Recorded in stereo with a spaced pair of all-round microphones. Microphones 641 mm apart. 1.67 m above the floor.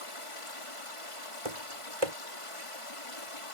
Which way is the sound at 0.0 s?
50° left (ahead or behind).